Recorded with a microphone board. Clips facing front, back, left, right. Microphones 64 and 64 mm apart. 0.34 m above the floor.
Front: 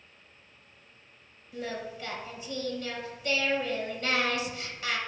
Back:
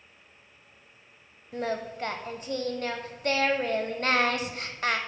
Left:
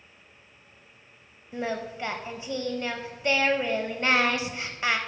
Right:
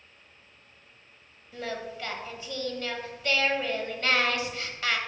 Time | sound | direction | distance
1.5 | singing | 155° left | 0.6 m